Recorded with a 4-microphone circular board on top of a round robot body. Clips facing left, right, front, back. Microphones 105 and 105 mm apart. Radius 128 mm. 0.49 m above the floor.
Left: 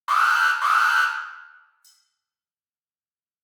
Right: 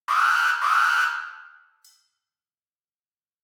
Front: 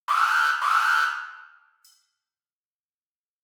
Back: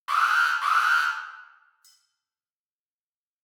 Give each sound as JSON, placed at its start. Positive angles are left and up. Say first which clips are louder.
{"t": 0.1, "sound": "an alarm", "louder": "left 1 dB, front 1 dB", "azimuth_deg": 20, "distance_m": 0.6}
{"t": 1.8, "sound": "cutlery clinking", "louder": "even, even", "azimuth_deg": -100, "distance_m": 0.9}